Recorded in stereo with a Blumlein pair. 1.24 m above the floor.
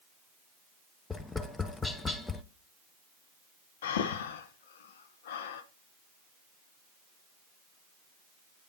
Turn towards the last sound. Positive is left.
turn(degrees=55)